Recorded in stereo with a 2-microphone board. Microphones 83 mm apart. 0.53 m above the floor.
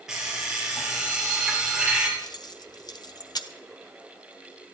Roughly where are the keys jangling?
Left.